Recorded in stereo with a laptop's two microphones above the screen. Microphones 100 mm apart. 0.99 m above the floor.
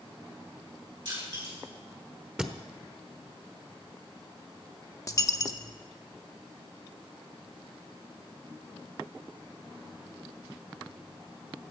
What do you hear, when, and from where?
1.1 s crushing: 55° right (ahead or behind), 6.5 m
2.4 s a thud: 10° right (ahead or behind), 1.0 m
5.1 s a dropped coin: 35° left (ahead or behind), 0.6 m